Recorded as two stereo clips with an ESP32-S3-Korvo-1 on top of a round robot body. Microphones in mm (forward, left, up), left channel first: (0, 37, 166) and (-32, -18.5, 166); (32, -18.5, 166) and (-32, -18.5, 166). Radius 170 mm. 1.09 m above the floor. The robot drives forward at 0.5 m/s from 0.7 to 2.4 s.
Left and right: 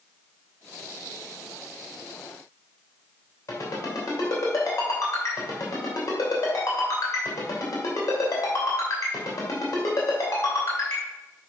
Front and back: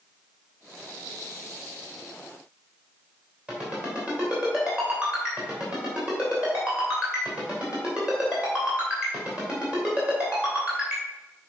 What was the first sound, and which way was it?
A ringtone, 105° left.